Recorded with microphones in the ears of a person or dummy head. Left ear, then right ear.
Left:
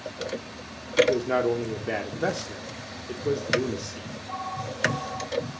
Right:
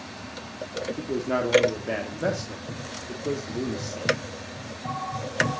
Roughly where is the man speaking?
Centre.